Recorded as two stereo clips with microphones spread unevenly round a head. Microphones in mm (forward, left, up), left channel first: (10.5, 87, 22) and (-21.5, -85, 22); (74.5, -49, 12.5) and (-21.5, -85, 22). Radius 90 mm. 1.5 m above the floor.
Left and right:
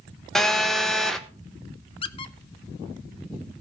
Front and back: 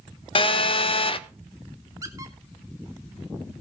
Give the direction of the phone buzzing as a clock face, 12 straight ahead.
12 o'clock.